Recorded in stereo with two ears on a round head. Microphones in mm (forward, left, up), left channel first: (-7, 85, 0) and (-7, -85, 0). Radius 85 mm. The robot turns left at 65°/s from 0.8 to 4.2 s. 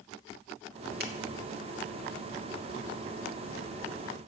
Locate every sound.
1.0 s a finger snap: 55° right (ahead or behind), 1.2 m